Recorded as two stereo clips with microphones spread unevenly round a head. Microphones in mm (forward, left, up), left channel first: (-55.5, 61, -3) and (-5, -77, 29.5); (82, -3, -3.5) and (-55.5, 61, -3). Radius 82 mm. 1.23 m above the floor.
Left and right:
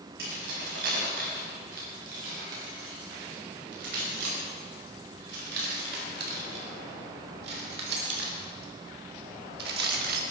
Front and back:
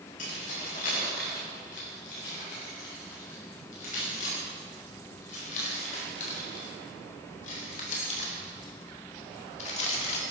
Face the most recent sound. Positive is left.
turn(degrees=-80)